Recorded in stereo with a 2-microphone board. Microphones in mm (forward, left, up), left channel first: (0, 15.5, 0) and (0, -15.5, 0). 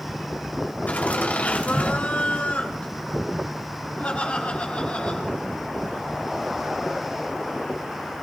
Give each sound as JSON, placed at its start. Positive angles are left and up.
{"t": 0.9, "sound": "laughter", "side_deg": 65, "distance_m": 4.5}